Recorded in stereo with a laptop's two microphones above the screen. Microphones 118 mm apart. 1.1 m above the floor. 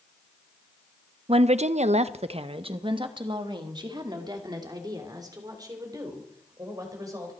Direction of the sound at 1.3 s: 55° right (ahead or behind).